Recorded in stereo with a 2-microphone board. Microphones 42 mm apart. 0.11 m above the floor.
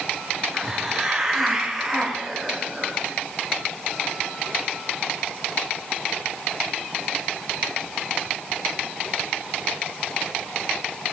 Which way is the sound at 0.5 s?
Centre (ahead or behind).